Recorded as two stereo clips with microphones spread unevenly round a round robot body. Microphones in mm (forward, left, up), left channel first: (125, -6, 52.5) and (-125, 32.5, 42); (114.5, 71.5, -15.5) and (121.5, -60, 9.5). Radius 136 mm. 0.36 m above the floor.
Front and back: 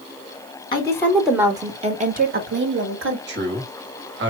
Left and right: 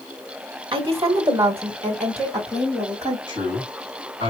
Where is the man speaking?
140° left, 2 m.